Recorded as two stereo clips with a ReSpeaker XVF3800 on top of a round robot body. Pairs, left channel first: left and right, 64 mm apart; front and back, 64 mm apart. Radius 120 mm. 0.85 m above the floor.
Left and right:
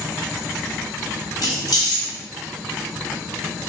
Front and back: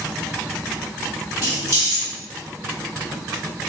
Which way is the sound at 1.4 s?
125° left.